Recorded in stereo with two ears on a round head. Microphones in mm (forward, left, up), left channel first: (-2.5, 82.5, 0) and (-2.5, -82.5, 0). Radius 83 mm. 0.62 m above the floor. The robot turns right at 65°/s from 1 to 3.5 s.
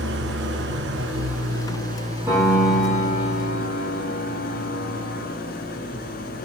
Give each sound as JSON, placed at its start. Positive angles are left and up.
{"t": 0.0, "sound": "an engine running", "azimuth_deg": -110, "distance_m": 3.0}
{"t": 2.3, "sound": "a piano", "azimuth_deg": -10, "distance_m": 8.0}